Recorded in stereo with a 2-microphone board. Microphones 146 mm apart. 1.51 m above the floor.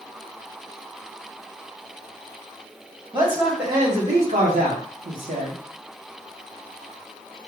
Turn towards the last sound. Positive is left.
turn(degrees=-50)  # may be behind; listen again after turning